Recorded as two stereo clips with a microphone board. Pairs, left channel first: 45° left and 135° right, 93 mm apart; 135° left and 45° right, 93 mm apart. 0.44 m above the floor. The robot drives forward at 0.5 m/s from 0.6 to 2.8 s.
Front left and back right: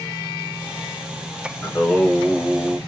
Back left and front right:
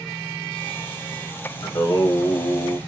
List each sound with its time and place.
1.6 s singing: 115° left, 1.3 m; by 2.8 s 140° left, 1.6 m